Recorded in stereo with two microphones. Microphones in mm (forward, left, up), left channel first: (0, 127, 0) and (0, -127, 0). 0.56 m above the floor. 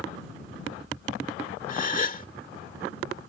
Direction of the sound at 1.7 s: 35° left (ahead or behind).